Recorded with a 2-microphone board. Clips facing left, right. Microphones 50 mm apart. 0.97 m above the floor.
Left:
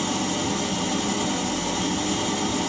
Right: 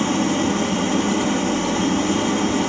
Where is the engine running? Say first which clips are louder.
Right 6 dB; 40° right (ahead or behind), 1.6 m.